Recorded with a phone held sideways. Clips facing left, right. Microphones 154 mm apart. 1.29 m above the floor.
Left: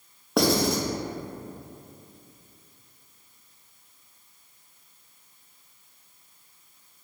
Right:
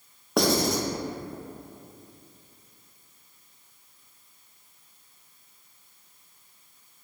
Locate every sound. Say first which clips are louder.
0.4 s writing: left 1 dB; centre (ahead or behind), 0.5 m